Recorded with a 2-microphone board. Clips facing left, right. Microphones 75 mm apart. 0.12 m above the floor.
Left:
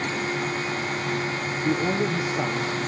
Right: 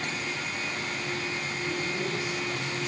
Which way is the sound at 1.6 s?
60° left (ahead or behind).